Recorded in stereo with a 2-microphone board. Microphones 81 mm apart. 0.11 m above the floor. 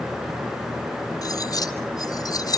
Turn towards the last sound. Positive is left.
turn(degrees=50)  # may be behind; listen again after turning